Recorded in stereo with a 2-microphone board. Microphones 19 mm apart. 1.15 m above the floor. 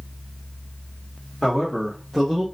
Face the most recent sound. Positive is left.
turn(degrees=-20)  # may be behind; listen again after turning